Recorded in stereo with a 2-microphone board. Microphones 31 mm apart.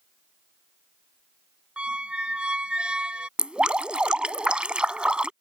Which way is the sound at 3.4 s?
35° right (ahead or behind).